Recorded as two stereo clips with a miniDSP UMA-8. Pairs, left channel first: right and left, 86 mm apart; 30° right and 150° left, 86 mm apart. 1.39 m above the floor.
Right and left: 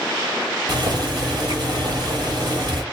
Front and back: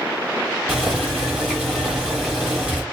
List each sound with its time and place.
0.7 s boiling: 70° left, 1.4 m